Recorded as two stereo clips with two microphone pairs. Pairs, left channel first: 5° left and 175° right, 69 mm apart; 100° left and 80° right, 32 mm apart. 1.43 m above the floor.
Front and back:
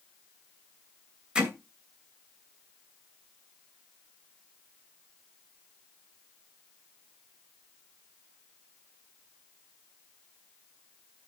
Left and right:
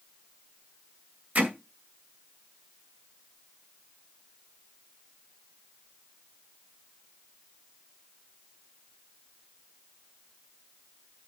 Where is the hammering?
100° right, 2.5 m.